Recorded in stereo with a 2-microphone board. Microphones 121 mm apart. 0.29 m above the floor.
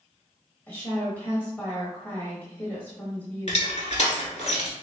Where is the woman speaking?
15° left (ahead or behind), 1.3 m.